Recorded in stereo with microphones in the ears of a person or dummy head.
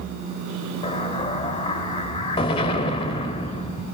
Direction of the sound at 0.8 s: 25° left (ahead or behind).